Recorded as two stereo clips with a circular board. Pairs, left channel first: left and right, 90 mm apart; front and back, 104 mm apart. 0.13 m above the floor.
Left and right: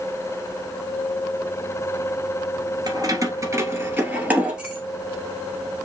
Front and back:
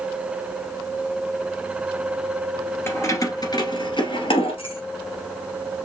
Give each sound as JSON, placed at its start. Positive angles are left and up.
{"t": 2.9, "sound": "keys jangling", "azimuth_deg": -60, "distance_m": 1.4}